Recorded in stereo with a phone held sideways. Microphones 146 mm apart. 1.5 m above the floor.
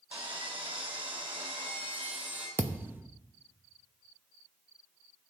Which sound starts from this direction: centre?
A thud, at 2.6 s.